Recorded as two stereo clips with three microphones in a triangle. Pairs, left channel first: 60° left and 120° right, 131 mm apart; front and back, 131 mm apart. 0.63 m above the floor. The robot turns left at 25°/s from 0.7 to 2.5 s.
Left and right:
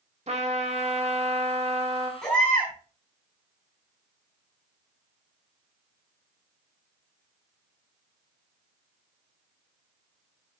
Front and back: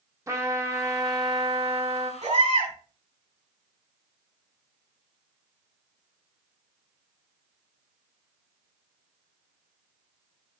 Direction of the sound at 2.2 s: 145° left.